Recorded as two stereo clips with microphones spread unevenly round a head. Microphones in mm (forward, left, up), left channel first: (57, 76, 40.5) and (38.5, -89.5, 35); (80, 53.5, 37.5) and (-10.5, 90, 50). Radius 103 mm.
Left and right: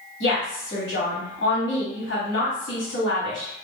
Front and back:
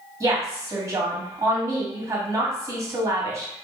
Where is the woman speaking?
100° left, 1.5 m.